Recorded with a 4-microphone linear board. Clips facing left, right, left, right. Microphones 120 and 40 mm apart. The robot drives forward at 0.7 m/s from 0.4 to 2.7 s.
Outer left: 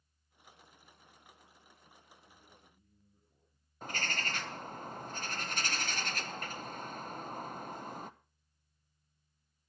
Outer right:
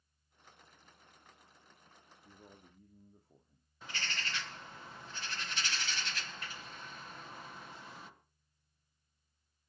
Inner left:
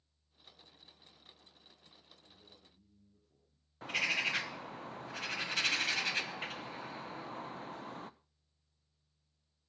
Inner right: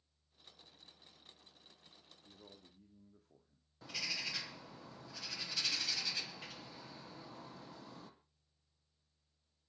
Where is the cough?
No cough in this recording.